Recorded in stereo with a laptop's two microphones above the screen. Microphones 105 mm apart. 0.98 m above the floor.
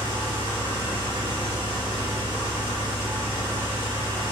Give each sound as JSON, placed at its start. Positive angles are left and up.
{"t": 0.0, "sound": "an engine running", "side_deg": -45, "distance_m": 0.9}